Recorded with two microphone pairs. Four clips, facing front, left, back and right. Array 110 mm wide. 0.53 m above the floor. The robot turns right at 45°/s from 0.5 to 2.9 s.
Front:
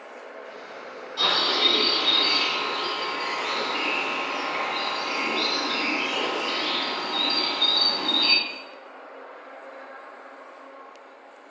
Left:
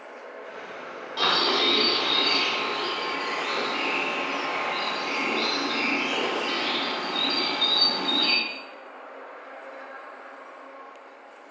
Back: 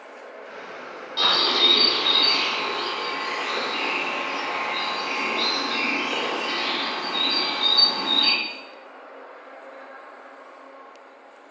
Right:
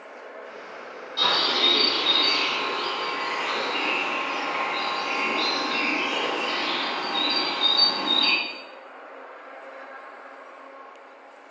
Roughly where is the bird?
Behind left.